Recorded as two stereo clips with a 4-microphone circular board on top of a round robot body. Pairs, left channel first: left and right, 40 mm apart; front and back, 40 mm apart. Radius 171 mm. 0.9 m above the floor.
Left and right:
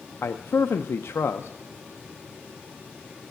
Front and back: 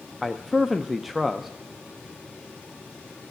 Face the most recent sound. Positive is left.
turn(degrees=95)